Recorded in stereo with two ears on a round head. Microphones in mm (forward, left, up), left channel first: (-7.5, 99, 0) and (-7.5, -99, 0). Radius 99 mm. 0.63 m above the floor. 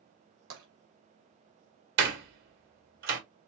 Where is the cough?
No cough in this recording.